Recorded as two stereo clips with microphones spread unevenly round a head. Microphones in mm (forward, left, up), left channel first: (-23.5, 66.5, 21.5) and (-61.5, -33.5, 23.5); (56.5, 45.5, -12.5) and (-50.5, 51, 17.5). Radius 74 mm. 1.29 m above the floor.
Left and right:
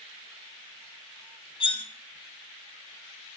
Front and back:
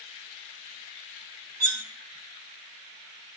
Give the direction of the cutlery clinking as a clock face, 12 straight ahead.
8 o'clock.